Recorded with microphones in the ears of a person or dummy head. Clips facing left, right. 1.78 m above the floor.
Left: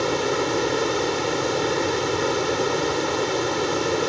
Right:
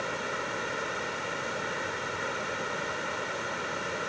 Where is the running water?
80° left.